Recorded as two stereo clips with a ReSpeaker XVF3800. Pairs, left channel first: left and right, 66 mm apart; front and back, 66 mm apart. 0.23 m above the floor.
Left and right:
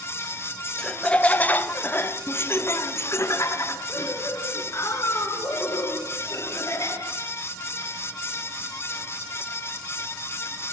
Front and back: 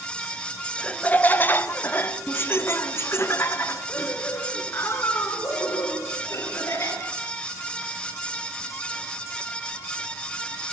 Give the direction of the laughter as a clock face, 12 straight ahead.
11 o'clock.